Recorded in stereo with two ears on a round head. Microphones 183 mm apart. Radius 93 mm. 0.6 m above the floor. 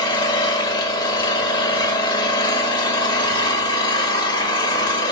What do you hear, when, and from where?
0.0 s an engine running: 20° left (ahead or behind), 1.3 m